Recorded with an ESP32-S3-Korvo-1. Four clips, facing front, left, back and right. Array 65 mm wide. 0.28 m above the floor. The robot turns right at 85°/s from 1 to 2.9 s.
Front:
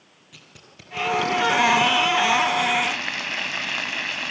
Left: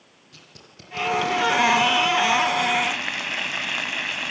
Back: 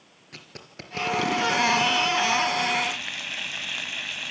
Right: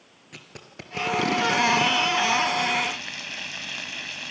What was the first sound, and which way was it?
Tape being pulled, 135° right.